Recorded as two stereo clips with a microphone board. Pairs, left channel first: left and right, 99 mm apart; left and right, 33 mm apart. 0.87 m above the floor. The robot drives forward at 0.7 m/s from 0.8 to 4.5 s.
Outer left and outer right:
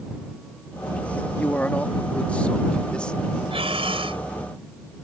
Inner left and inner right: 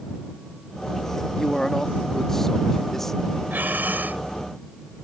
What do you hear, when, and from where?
1.4 s a man speaking: 20° left (ahead or behind); by 3.4 s 10° left (ahead or behind)
3.5 s breathing: 75° right (ahead or behind); by 4.2 s 65° right (ahead or behind)